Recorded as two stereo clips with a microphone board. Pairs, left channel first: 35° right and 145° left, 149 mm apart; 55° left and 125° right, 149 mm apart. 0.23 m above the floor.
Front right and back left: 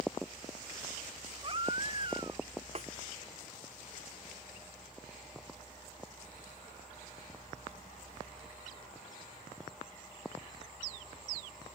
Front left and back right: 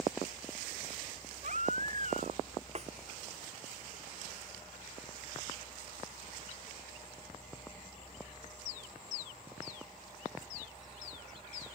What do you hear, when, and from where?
1.4 s a baby crying: 160° right
2.8 s a snare drum: 170° right